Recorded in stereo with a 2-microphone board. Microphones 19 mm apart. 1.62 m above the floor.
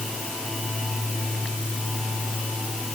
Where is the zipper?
No zipper in this recording.